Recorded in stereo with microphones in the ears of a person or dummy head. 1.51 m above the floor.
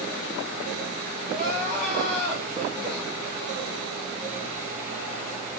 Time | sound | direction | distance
1.3 | crying | 5° left (ahead or behind) | 1.2 m